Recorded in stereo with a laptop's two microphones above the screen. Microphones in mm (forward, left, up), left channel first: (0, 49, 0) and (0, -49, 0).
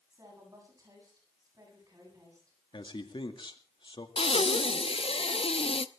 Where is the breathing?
75° left (ahead or behind), 0.7 m.